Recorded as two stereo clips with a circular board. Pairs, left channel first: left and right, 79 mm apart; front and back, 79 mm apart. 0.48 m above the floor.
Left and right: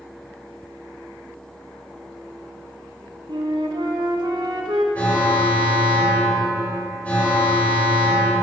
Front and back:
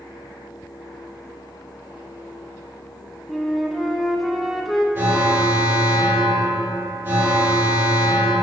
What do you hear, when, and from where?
3.3 s a flute: 90° right, 0.7 m
5.0 s an alarm: 145° left, 2 m